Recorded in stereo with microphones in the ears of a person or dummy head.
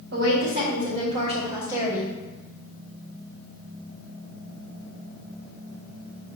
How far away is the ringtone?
I don't hear a ringtone.